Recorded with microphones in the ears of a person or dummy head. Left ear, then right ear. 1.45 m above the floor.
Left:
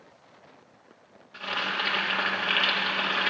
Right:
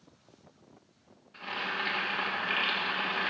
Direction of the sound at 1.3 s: 20° left (ahead or behind).